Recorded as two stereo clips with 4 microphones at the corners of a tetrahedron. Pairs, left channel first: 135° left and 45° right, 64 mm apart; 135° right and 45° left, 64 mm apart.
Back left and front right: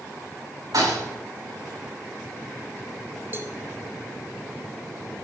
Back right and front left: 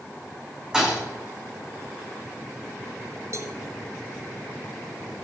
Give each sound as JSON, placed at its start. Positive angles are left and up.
{"t": 0.7, "sound": "a thud", "azimuth_deg": -35, "distance_m": 7.5}
{"t": 3.3, "sound": "a cowbell", "azimuth_deg": 10, "distance_m": 1.0}